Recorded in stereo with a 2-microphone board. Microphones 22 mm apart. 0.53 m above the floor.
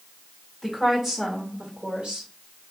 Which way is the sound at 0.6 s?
Centre (ahead or behind).